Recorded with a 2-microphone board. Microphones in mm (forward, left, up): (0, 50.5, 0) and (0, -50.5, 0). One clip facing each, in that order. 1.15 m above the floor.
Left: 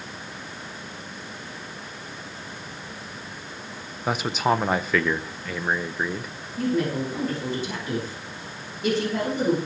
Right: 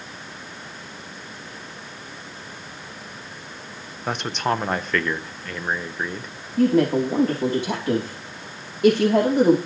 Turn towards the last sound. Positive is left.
turn(degrees=-80)